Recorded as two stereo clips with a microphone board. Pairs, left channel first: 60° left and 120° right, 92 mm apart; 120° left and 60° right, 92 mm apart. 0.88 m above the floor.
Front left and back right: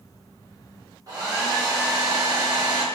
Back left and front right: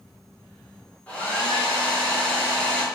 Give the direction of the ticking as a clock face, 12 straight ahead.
I don't hear ticking.